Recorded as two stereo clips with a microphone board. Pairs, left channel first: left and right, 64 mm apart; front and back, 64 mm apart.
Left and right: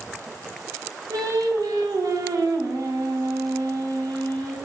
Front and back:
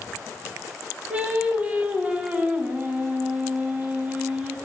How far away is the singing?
About 0.9 m.